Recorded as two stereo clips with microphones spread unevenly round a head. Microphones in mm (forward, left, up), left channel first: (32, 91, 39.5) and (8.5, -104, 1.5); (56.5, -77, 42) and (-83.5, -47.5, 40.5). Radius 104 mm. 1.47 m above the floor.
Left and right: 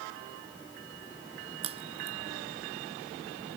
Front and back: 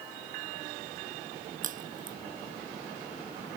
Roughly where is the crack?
Behind.